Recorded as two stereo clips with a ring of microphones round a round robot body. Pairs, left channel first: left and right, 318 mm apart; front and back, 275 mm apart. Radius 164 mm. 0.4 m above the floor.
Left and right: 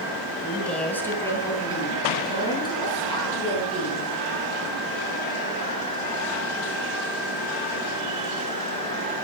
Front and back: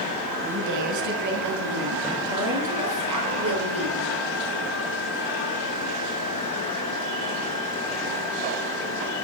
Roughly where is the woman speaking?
Behind.